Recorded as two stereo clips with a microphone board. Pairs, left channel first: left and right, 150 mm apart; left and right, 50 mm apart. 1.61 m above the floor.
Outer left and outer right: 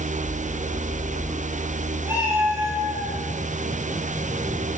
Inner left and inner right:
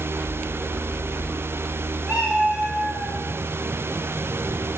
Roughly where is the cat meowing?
Centre.